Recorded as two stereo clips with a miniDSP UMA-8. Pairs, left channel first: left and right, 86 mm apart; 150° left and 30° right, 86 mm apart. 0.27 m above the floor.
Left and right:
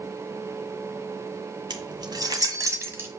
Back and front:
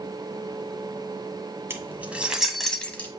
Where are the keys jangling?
85° right, 1.6 m; by 3.1 s 145° right, 1.4 m.